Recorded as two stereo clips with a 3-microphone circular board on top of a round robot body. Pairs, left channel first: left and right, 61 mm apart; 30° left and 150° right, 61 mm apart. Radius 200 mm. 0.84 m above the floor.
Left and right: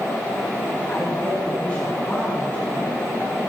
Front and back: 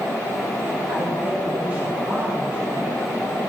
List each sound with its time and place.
0.9 s a woman speaking: 155° left, 2.5 m